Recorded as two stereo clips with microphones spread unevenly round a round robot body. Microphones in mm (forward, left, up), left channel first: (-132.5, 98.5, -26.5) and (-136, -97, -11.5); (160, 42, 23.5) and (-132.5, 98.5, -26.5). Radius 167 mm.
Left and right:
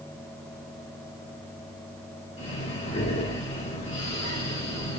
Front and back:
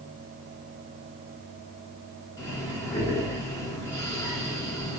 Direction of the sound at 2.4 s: 75° left.